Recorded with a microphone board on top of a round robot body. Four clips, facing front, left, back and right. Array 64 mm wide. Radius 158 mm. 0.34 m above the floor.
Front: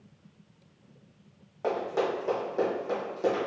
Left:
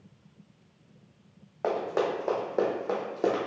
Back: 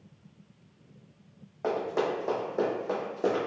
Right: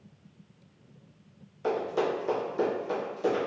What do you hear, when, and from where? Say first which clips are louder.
1.6 s running footsteps: even, even; 90° left, 1.8 m; by 3.5 s 105° left, 0.9 m